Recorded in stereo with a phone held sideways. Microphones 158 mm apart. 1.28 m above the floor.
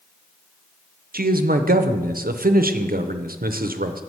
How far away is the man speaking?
About 0.5 m.